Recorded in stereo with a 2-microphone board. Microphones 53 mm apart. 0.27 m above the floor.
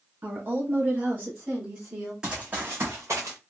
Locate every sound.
0.2 s a woman speaking: 40° right (ahead or behind), 1.2 m; by 2.1 s 30° right (ahead or behind), 2 m
2.2 s running footsteps: 15° right (ahead or behind), 1.0 m; by 3.4 s 60° right (ahead or behind), 1.6 m